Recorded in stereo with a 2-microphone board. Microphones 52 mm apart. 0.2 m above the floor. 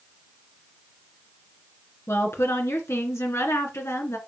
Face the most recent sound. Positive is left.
turn(degrees=60)  # may be behind; listen again after turning